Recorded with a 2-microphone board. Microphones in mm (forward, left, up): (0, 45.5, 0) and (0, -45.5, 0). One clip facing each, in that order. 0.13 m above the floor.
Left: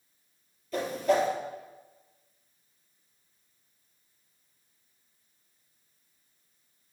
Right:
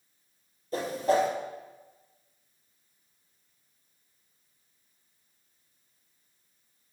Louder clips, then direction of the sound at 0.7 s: Even; 35° right (ahead or behind).